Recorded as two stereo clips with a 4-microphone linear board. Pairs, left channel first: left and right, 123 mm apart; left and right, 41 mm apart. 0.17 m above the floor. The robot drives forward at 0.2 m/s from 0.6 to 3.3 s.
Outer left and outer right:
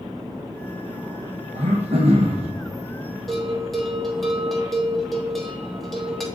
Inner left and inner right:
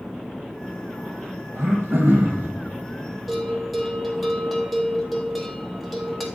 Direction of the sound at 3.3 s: Centre (ahead or behind).